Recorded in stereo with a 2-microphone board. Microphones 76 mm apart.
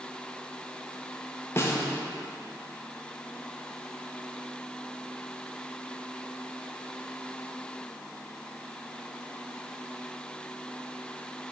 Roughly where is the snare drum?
Left.